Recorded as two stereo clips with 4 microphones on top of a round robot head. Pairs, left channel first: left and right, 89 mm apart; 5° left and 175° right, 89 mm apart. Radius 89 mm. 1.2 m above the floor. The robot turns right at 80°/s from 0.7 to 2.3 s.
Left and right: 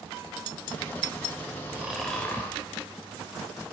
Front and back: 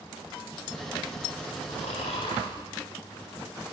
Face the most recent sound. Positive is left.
turn(degrees=25)